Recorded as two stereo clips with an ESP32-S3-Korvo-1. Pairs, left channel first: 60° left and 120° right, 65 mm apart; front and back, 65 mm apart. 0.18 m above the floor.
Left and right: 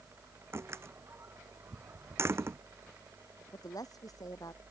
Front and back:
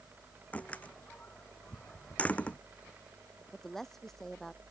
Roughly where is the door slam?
Right.